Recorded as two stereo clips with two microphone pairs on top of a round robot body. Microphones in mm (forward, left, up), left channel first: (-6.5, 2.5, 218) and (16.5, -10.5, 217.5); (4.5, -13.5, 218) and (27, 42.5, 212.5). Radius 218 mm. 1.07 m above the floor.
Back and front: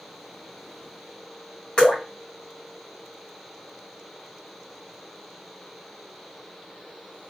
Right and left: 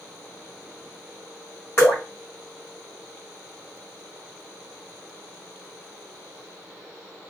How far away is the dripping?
About 1.4 m.